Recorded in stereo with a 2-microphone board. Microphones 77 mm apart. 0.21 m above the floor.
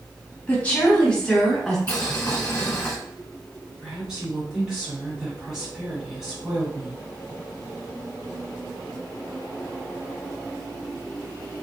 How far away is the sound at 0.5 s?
About 1.4 m.